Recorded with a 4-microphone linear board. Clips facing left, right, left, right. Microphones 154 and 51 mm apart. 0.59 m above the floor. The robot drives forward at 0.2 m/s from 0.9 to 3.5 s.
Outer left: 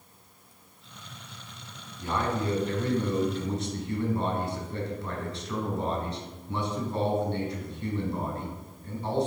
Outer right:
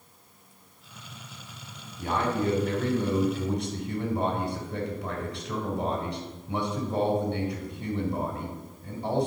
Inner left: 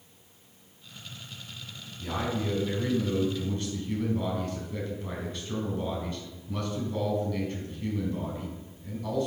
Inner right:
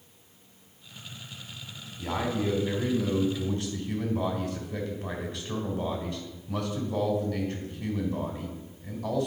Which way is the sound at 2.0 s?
60° right (ahead or behind).